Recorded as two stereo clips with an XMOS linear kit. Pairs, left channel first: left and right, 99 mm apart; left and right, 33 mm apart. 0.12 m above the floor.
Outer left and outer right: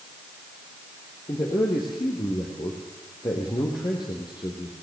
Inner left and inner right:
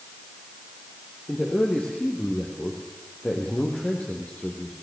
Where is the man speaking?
50° left (ahead or behind), 4.5 m.